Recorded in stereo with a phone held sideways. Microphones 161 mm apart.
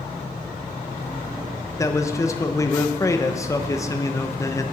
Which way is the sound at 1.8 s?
20° left (ahead or behind).